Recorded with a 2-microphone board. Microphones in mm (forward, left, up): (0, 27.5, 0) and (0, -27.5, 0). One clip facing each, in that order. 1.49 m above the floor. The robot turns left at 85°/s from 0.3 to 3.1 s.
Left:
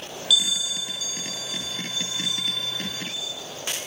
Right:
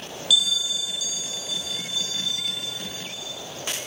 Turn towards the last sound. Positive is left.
turn(degrees=-55)